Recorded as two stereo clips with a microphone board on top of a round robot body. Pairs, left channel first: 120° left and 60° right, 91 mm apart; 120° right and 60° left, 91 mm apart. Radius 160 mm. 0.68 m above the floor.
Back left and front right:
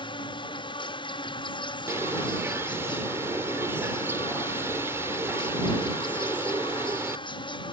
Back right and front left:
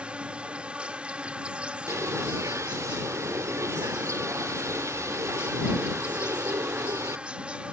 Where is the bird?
5° left.